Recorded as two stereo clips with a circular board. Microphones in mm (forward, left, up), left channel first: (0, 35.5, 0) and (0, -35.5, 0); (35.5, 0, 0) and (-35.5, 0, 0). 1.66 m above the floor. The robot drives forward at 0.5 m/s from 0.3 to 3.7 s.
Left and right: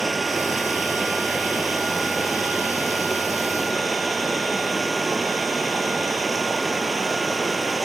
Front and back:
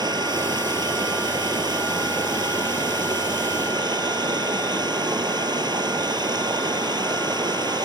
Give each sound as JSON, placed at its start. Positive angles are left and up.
{"t": 0.0, "sound": "running water", "azimuth_deg": 180}